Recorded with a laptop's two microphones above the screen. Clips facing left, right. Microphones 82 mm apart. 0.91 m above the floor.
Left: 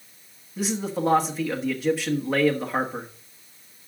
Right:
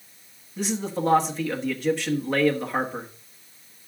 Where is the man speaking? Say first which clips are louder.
Left 1 dB; 5° left (ahead or behind), 1.5 m.